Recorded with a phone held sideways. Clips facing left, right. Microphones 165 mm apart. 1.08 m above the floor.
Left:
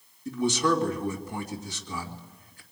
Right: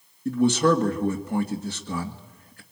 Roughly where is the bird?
No bird in this recording.